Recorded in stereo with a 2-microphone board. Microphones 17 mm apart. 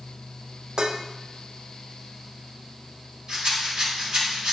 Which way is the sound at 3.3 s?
50° right (ahead or behind).